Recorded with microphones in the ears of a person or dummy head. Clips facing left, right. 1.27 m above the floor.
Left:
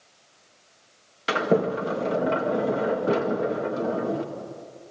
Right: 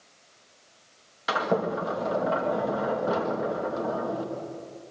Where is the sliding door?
30° left (ahead or behind), 2.0 m.